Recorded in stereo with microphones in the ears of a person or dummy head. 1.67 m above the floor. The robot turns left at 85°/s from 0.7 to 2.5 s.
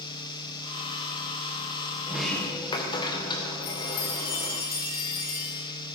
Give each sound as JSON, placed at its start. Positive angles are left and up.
{"t": 2.1, "sound": "a sliding door", "azimuth_deg": -165, "distance_m": 1.7}
{"t": 3.6, "sound": "a chime", "side_deg": 60, "distance_m": 8.5}